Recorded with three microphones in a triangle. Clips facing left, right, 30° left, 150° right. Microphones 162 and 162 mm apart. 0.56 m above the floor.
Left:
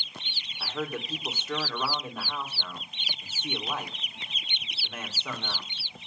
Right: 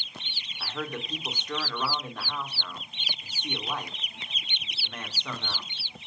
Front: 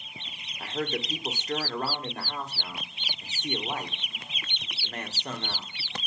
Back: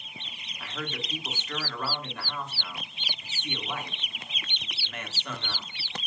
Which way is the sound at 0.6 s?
10° left.